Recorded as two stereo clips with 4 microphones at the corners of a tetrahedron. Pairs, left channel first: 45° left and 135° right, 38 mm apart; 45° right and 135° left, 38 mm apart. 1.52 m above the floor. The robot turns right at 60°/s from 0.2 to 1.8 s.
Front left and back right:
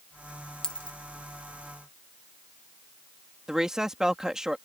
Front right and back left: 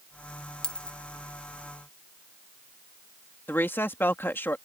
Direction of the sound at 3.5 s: 60° right.